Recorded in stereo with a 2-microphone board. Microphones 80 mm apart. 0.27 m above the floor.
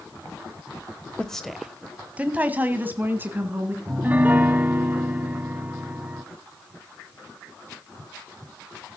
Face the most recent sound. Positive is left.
turn(degrees=-20)  # may be behind; listen again after turning